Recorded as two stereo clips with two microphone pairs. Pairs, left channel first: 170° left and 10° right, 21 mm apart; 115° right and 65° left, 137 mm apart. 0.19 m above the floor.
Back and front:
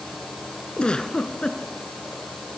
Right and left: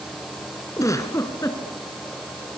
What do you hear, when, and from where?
0.8 s a giggle: straight behind, 2 m